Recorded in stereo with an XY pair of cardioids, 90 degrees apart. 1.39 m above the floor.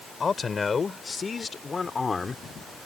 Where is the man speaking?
35° left; by 2.4 s 25° left.